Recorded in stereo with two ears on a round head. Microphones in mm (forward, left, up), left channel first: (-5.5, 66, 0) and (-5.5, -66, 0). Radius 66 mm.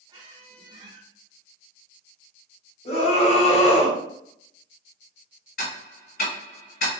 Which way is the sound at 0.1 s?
30° right (ahead or behind).